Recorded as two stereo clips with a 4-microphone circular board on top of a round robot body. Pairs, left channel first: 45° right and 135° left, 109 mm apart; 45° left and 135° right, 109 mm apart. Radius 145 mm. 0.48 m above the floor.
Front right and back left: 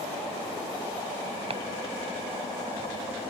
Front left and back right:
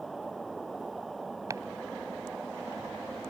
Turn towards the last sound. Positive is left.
turn(degrees=165)